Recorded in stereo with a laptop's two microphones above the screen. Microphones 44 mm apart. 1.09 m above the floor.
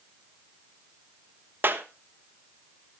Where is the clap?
50° right (ahead or behind), 1.2 m.